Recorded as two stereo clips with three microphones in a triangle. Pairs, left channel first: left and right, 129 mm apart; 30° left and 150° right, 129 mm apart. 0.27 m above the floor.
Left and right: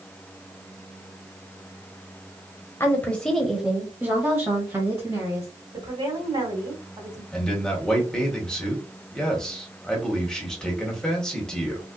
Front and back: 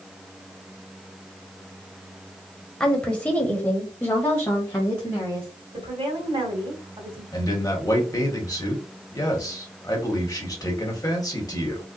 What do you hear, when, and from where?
2.8 s a woman speaking: 100° left, 1.0 m; by 5.5 s 40° right, 1.8 m
5.7 s a woman speaking: 130° right, 2.5 m
7.3 s a man speaking: 15° left, 1.4 m